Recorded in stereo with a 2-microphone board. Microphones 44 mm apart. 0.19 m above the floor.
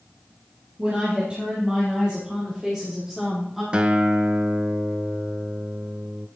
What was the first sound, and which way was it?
A woman speaking, 30° right (ahead or behind).